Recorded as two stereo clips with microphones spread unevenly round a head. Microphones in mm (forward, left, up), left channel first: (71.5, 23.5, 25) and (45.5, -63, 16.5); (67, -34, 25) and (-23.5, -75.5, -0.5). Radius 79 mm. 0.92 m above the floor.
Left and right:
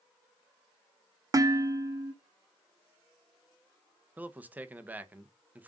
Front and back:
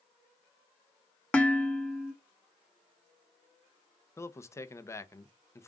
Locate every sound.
1.3 s dishes clattering: 55° right, 1.2 m
4.2 s a man speaking: 45° right, 1.0 m